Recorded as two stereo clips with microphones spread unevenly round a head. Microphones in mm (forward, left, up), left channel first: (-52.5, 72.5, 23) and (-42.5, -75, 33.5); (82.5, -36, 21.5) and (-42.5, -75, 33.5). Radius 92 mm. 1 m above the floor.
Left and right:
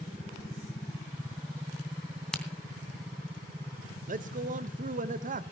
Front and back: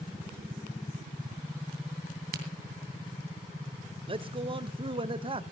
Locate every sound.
2.3 s a crack: straight behind, 2.5 m
4.1 s a man speaking: 115° right, 1.1 m